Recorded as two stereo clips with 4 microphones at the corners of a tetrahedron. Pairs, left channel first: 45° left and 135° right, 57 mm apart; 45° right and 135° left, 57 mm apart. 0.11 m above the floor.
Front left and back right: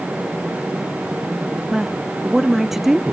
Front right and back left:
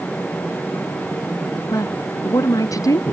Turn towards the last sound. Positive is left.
turn(degrees=-50)